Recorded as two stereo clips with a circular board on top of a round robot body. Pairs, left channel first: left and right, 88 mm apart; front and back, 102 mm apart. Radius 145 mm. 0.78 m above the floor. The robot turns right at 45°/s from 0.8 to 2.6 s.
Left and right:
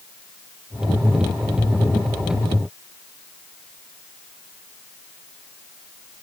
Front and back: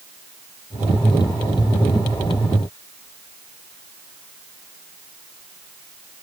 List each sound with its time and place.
Only background noise.